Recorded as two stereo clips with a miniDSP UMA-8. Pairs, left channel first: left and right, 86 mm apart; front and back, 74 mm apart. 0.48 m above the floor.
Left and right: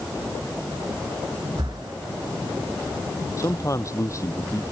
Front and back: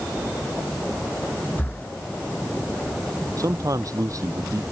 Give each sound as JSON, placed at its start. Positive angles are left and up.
{"t": 1.6, "sound": "breathing", "azimuth_deg": -65}
{"t": 3.4, "sound": "a man speaking", "azimuth_deg": 140}